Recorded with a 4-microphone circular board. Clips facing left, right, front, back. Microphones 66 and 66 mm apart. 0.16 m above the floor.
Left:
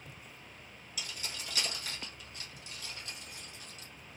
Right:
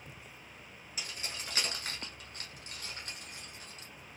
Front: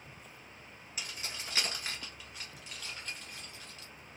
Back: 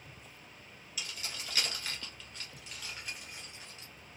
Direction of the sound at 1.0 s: 45° right.